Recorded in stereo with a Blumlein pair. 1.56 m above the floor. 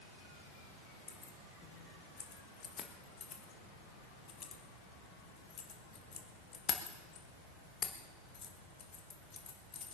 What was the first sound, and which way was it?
Keys jangling, 25° left.